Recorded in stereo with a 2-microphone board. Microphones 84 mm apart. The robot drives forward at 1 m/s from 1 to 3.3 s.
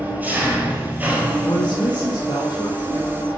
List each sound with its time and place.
0.0 s an engine running: 20° right (ahead or behind), 3 m; by 3.4 s 10° right (ahead or behind), 5 m
1.4 s a woman speaking: 65° left (ahead or behind), 3 m; by 3.1 s 45° left (ahead or behind), 3.5 m